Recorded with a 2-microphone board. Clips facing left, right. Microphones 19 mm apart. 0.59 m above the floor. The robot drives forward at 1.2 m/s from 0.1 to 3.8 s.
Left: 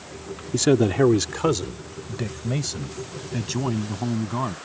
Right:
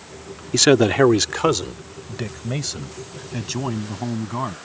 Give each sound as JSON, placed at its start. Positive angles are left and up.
{"t": 0.5, "sound": "a man speaking", "side_deg": -50}